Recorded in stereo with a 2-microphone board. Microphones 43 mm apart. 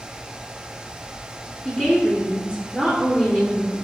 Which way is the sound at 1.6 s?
25° left (ahead or behind).